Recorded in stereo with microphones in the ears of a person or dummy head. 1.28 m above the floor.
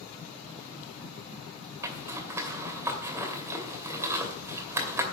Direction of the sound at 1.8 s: 20° right (ahead or behind).